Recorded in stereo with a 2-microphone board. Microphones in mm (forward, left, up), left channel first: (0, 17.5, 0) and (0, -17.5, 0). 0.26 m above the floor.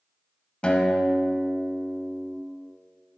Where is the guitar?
30° left (ahead or behind), 0.9 m.